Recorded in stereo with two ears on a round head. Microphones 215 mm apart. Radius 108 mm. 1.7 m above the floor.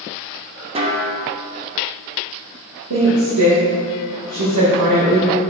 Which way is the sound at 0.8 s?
25° right (ahead or behind).